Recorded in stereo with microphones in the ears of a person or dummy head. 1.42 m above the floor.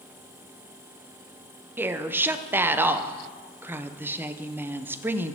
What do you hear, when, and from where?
1.8 s a woman speaking: 10° right (ahead or behind), 0.7 m